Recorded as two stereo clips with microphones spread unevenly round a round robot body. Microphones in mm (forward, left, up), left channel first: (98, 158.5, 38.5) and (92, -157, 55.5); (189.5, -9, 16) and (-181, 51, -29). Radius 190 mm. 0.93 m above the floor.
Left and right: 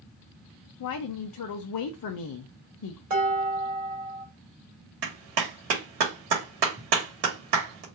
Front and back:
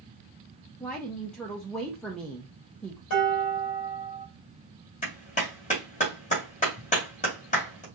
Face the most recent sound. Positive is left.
turn(degrees=-85)